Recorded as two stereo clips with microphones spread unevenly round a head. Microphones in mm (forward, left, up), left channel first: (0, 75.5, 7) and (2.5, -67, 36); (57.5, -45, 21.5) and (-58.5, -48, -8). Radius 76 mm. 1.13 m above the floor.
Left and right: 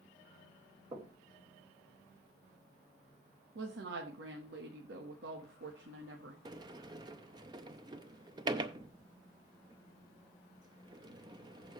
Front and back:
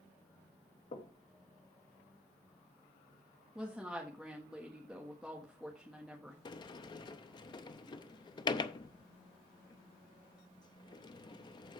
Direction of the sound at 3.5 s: 95° right.